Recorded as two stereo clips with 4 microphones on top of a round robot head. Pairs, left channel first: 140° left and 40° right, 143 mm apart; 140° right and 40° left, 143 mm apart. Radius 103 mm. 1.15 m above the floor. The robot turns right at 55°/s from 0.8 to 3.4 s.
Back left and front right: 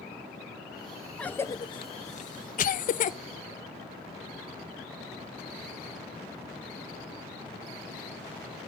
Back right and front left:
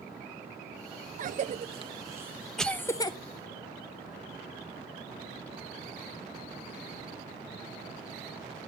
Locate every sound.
1.2 s a cough: 55° left, 0.5 m; by 3.2 s 165° left, 0.5 m